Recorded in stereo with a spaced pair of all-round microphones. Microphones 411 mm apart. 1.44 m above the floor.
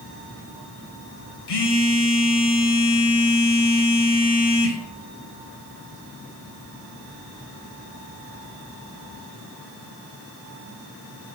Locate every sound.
1.5 s a phone buzzing: 75° left (ahead or behind), 0.6 m